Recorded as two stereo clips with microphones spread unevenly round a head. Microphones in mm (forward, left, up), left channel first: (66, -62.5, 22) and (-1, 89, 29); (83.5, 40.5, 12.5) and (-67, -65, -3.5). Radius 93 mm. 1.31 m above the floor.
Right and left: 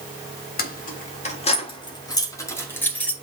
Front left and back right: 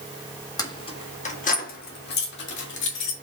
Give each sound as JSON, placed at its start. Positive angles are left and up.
{"t": 0.6, "sound": "keys jangling", "azimuth_deg": -35, "distance_m": 1.7}